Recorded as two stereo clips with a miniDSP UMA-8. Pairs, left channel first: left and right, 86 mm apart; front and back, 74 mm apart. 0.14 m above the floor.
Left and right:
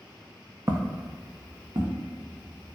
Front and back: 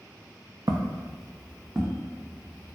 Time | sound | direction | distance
0.7 | footsteps | 145° right | 0.5 m